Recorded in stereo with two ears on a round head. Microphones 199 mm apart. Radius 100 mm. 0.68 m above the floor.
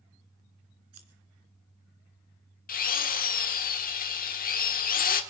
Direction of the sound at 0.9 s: 70° right (ahead or behind).